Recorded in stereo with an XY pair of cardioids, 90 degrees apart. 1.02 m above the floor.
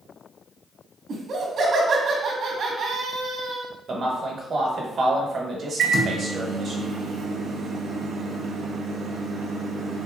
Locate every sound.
1.1 s laughter: 60° right, 1.2 m
3.9 s a man speaking: 50° right, 1.1 m
5.8 s a microwave: 65° right, 0.6 m